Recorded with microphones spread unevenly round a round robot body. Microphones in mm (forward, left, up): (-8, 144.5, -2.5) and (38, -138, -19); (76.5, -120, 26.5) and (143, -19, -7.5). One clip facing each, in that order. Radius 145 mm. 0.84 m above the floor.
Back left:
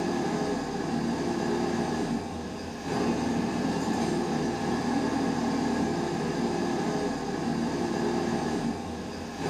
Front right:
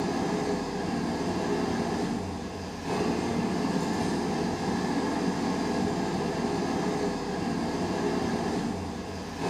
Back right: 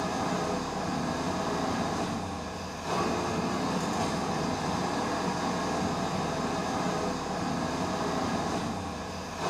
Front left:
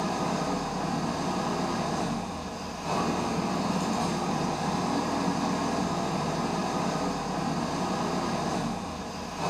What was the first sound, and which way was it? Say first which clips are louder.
An engine running: even, front left 1 dB; 5° right.